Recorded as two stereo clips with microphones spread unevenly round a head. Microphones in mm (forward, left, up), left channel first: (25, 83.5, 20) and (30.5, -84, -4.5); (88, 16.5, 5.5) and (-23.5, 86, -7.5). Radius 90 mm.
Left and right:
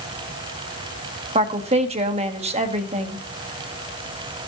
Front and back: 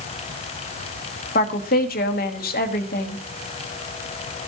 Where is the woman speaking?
40° right, 1.6 m.